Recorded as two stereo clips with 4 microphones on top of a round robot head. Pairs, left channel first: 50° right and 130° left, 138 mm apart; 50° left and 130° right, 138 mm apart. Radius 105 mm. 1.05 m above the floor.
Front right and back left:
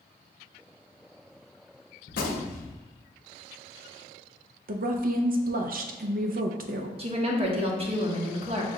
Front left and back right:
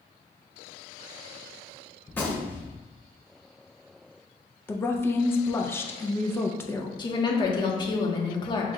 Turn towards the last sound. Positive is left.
turn(degrees=100)